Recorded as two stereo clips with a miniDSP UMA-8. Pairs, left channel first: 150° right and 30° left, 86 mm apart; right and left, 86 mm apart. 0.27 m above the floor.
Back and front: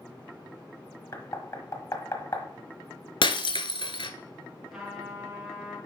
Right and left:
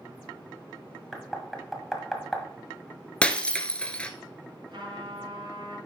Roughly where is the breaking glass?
Behind.